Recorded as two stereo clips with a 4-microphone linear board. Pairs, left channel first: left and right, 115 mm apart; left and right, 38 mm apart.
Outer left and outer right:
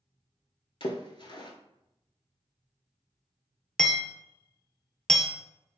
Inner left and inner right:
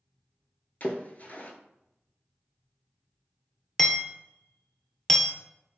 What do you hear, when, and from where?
0.8 s a splash: 45° left (ahead or behind), 0.6 m
3.8 s hammering: 5° left (ahead or behind), 0.5 m